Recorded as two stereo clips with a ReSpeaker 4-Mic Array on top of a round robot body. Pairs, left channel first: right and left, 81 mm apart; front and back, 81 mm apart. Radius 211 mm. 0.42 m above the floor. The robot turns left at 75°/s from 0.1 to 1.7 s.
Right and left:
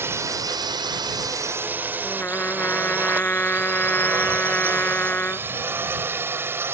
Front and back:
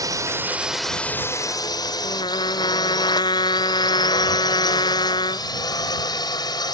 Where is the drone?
145° left; by 6.7 s 30° left.